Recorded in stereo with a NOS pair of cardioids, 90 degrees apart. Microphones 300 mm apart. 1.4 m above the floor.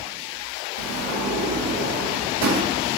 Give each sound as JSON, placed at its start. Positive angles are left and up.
{"t": 0.8, "sound": "a sliding door", "azimuth_deg": -65, "distance_m": 0.6}